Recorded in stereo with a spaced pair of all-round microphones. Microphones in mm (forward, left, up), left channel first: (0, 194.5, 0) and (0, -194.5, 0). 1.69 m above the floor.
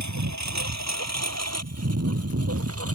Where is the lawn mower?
50° right (ahead or behind); by 3.0 s 40° right (ahead or behind).